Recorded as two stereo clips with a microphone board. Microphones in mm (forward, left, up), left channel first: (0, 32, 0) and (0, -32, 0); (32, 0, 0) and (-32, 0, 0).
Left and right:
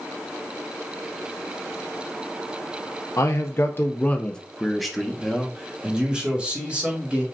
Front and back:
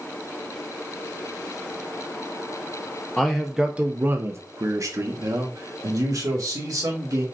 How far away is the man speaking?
About 0.7 m.